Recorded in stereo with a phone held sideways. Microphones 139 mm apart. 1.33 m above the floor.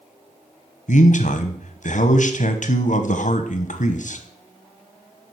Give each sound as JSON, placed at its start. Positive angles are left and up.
{"t": 0.9, "sound": "a man speaking", "side_deg": 65, "distance_m": 1.0}